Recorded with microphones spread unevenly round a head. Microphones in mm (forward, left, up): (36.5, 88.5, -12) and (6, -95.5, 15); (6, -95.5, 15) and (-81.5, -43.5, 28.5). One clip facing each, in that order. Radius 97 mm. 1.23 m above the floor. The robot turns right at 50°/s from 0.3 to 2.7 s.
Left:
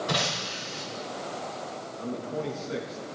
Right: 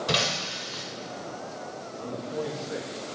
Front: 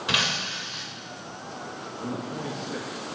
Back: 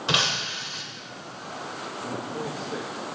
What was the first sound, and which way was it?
Breaking glass, 150° right.